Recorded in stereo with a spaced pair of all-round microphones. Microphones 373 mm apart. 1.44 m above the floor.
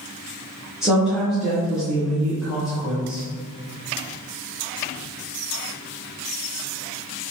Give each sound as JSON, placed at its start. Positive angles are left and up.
{"t": 0.8, "sound": "a woman speaking", "side_deg": 0, "distance_m": 1.0}